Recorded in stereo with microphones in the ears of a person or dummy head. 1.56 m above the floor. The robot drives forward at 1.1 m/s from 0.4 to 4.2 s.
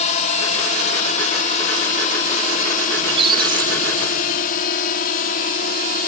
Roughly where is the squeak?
Right.